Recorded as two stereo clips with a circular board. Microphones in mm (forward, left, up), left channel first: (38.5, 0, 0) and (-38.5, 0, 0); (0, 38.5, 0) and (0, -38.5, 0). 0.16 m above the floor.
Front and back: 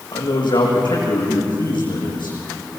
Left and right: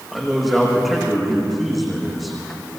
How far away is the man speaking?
About 9 m.